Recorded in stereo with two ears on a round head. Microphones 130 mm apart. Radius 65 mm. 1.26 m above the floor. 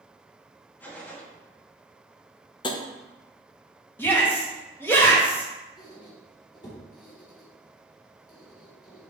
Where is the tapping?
35° left (ahead or behind), 0.9 m.